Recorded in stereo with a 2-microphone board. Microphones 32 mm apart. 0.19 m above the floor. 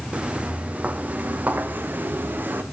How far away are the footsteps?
About 2.5 m.